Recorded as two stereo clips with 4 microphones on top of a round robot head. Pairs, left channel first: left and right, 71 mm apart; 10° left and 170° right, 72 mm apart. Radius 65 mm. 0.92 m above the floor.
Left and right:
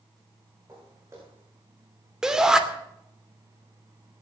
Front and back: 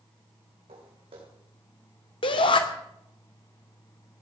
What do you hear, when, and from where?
0.7 s footsteps: 155° right, 3.5 m
2.2 s a shout: 10° right, 2.5 m